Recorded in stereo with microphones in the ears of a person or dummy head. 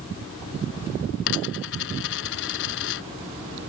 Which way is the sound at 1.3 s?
60° left (ahead or behind).